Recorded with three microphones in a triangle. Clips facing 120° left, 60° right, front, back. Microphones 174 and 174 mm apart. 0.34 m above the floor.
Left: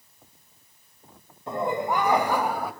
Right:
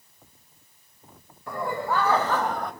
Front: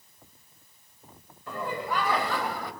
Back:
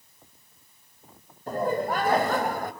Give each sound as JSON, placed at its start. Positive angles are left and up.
{"t": 1.5, "sound": "laughter", "azimuth_deg": 175, "distance_m": 1.7}